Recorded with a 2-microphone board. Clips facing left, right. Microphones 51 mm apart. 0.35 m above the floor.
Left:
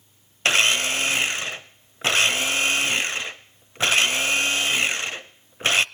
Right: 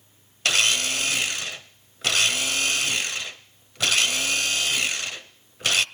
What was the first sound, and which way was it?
A blender, 30° left (ahead or behind).